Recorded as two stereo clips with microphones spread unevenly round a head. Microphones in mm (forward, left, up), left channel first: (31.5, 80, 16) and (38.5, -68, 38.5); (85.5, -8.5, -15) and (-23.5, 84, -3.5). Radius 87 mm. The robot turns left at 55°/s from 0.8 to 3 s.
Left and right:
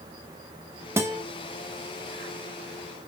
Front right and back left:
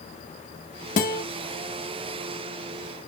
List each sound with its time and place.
1.0 s a guitar: 10° right, 1.2 m; by 1.2 s 25° right, 1.2 m